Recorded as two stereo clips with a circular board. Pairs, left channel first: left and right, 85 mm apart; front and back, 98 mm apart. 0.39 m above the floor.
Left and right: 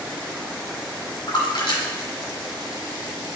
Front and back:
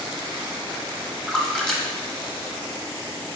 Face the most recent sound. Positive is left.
turn(degrees=80)